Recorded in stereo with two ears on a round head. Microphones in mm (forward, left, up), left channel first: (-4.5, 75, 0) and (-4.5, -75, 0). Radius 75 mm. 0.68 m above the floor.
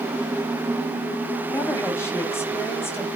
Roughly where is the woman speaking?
Centre.